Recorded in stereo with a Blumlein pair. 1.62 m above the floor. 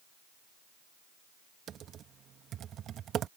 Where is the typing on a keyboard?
25° right.